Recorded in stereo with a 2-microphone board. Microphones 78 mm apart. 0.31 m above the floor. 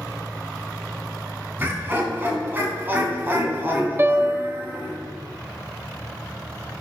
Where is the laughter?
25° right (ahead or behind), 3 m.